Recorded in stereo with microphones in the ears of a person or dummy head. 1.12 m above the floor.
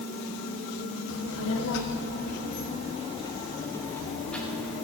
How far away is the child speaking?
About 1.1 m.